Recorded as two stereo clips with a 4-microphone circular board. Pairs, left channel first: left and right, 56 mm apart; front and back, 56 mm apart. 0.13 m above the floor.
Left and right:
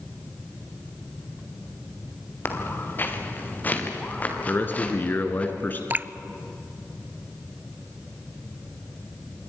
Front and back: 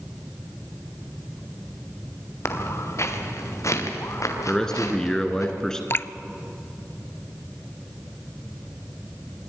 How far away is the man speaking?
About 2.0 m.